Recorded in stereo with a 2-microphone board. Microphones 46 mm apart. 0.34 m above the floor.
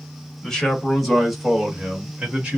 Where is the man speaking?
10° left (ahead or behind), 1.4 m; by 2.6 s 20° right (ahead or behind), 1.3 m.